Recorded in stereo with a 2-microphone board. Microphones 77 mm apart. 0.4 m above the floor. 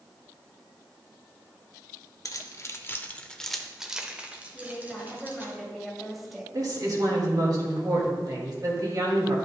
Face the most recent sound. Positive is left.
turn(degrees=-55)  # may be behind; listen again after turning